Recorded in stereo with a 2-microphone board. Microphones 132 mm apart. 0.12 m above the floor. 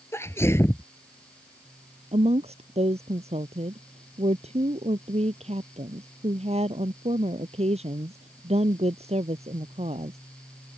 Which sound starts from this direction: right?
A woman speaking, at 2.1 s.